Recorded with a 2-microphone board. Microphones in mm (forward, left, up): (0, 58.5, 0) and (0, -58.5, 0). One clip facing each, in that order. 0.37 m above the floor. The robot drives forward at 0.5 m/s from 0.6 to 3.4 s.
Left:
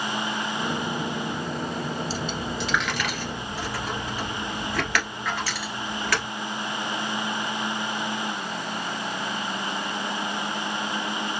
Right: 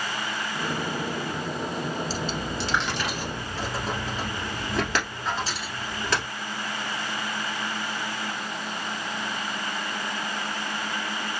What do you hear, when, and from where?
2.1 s a dropped coin: 40° right (ahead or behind), 0.9 m; by 6.2 s 25° right (ahead or behind), 1.4 m